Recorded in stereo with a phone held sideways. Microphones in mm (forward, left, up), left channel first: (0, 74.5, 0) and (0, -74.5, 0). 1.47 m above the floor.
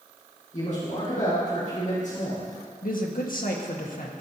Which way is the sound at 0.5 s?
65° left (ahead or behind).